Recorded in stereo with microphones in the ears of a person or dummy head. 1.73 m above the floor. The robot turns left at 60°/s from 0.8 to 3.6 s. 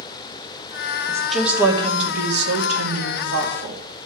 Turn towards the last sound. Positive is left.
turn(degrees=-135)